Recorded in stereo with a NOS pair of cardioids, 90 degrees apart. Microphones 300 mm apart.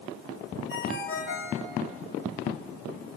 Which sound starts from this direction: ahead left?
A ringtone, at 0.7 s.